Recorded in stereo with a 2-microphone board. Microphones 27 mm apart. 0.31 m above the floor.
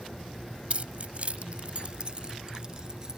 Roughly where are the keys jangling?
Right.